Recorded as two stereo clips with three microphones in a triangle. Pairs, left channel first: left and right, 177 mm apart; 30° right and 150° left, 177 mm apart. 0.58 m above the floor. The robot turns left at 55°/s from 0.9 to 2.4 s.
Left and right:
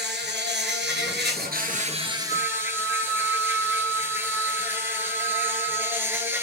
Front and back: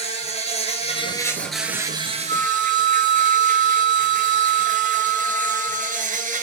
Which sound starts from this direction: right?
An insect, at 0.0 s.